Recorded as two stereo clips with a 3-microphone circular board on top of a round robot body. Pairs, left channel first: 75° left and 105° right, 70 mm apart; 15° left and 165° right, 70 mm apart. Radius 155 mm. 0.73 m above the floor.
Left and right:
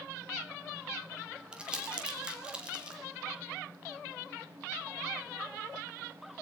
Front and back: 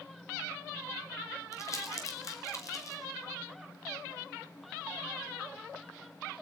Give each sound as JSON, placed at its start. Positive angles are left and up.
{"t": 1.5, "sound": "crumpling", "azimuth_deg": -30, "distance_m": 2.5}